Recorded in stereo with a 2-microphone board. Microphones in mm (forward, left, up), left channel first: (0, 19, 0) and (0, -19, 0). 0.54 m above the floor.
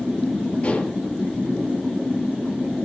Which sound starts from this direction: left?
Dishes clattering, at 0.6 s.